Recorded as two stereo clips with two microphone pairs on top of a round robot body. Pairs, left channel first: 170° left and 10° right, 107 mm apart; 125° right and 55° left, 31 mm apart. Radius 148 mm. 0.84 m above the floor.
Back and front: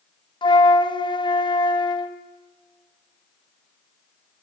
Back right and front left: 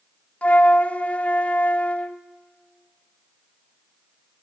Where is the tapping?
No tapping in this recording.